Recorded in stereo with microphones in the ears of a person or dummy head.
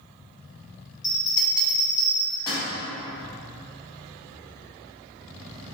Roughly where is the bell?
Centre.